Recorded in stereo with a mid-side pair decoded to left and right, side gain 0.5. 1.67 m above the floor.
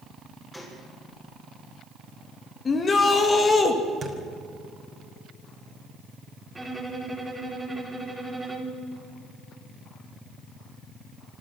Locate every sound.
0.5 s a gunshot: 15° left, 7 m
2.6 s a shout: 40° left, 2.5 m
4.0 s a thud: 40° right, 3.5 m
6.5 s a violin: 10° right, 4 m